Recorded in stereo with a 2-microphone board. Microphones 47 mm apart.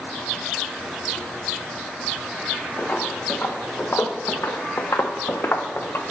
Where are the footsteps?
30° left (ahead or behind), 1.3 m; by 6.0 s 55° left (ahead or behind), 0.9 m.